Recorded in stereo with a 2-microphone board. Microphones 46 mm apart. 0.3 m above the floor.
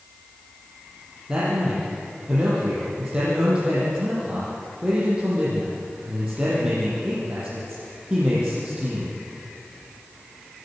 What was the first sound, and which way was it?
A man speaking, 20° right (ahead or behind).